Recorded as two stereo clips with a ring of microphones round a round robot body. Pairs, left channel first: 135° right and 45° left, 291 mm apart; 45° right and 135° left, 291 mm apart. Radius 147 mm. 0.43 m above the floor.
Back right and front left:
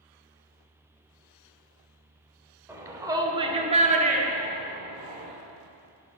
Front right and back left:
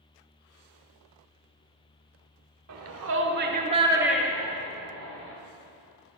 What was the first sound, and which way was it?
A shout, 125° left.